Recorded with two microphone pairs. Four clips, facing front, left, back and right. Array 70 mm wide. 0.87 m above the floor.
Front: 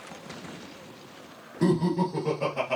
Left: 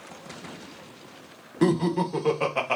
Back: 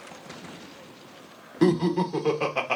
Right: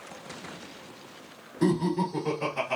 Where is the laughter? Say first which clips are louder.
Left 3 dB, back 3 dB; 125° left, 1.1 m.